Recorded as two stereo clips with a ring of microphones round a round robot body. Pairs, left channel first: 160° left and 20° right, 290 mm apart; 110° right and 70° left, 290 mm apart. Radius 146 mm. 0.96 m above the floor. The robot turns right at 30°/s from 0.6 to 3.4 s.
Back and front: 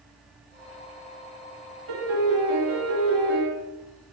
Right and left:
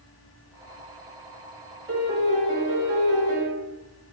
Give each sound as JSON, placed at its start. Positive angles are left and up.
{"t": 1.9, "sound": "a piano", "azimuth_deg": -10, "distance_m": 1.1}